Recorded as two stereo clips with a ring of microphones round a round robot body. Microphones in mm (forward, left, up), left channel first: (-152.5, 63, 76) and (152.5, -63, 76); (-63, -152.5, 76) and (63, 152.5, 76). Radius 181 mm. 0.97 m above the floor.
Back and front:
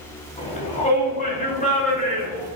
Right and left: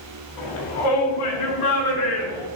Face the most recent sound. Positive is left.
turn(degrees=-135)